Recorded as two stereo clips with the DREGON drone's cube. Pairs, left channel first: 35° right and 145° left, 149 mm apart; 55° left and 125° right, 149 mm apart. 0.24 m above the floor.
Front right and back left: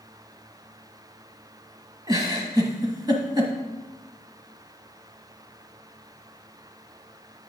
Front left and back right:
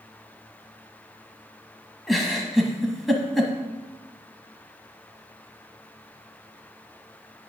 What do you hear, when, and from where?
2.1 s a giggle: 145° left, 1.1 m